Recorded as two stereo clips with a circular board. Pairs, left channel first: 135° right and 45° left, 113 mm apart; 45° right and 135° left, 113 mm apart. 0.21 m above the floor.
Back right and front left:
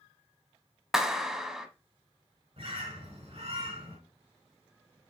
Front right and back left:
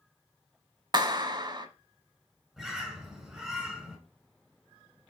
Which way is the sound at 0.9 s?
130° left.